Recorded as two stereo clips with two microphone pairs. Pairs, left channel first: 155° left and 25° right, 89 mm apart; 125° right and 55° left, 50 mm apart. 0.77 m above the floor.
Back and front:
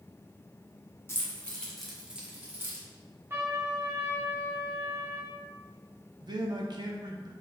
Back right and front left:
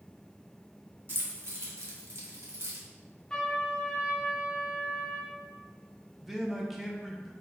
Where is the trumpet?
55° right, 0.9 m.